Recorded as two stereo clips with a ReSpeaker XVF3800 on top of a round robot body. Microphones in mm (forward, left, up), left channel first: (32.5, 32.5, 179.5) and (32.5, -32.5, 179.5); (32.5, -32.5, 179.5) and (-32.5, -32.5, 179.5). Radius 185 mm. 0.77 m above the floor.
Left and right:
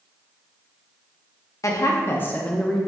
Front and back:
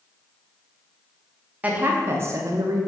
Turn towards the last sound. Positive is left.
turn(degrees=175)